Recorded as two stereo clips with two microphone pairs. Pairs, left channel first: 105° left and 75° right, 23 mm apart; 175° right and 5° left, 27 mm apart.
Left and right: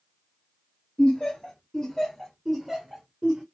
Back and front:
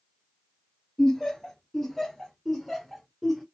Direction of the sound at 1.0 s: 110° left.